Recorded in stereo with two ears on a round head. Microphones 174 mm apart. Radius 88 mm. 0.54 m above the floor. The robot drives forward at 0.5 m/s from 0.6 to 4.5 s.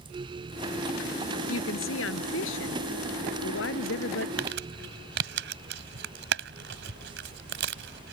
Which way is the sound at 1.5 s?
80° left.